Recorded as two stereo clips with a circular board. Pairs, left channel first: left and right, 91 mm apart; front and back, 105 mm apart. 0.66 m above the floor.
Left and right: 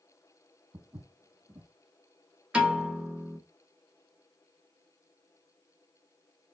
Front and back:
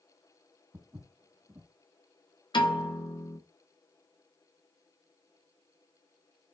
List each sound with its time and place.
0.7 s footsteps: 125° right, 1.3 m
2.5 s a piano: 15° right, 1.0 m